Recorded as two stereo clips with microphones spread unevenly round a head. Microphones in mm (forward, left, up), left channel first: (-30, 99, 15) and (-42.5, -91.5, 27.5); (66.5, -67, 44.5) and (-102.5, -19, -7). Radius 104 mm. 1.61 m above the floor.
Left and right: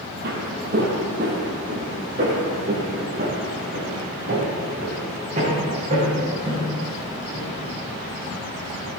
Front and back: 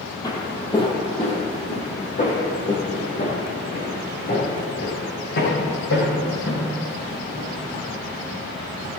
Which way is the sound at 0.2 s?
65° right.